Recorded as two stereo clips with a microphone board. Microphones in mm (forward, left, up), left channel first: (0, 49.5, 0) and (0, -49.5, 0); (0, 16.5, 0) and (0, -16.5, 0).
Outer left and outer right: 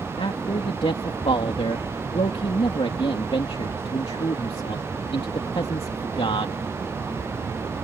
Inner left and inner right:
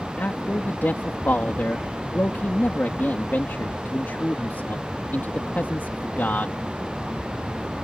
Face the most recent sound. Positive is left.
turn(degrees=70)  # may be behind; listen again after turning